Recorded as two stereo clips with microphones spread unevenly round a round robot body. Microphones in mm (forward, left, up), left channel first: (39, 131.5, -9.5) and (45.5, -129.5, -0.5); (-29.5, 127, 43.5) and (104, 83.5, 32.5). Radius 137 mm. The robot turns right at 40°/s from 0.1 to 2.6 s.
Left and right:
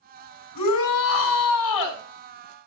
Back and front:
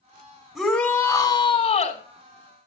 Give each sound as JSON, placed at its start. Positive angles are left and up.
{"t": 0.6, "sound": "a shout", "azimuth_deg": 70, "distance_m": 3.0}